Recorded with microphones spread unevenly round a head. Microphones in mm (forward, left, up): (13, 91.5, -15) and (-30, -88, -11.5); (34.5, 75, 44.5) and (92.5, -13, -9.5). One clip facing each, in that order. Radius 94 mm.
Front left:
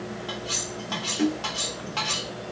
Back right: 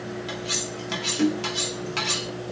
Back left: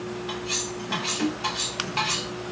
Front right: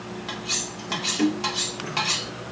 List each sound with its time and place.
0.3 s cutlery clinking: 60° right, 1.3 m